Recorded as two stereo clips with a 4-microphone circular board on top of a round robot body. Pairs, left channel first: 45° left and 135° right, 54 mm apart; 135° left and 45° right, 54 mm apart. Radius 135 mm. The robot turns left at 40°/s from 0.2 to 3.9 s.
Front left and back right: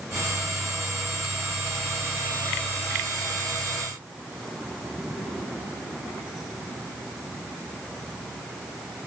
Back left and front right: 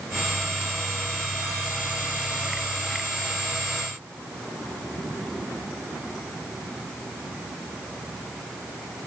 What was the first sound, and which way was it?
Only background noise.